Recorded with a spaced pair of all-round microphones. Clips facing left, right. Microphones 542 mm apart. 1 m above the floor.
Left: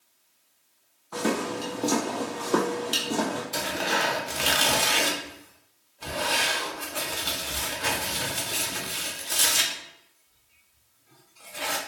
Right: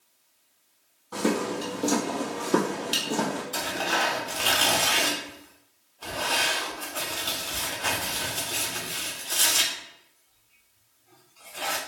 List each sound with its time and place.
1.1 s footsteps: 50° right (ahead or behind), 1.6 m; by 3.4 s 10° left (ahead or behind), 1.2 m
3.5 s tearing paper: 50° left (ahead or behind), 0.5 m